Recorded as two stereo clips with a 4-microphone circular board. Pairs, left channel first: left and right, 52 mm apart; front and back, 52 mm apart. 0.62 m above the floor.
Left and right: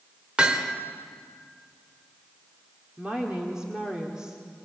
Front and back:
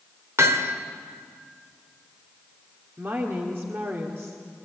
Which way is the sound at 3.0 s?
160° right.